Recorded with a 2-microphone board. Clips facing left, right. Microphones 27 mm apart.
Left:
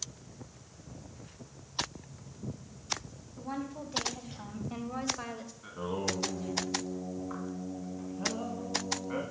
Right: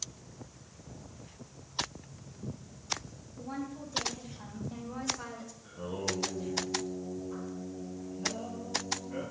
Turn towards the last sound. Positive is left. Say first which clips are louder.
# left 2 dB
turn(degrees=75)  # may be behind; listen again after turning